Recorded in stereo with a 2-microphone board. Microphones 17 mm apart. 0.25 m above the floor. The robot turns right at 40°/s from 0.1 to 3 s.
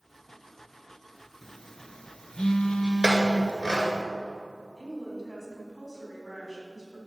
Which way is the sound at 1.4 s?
35° left (ahead or behind).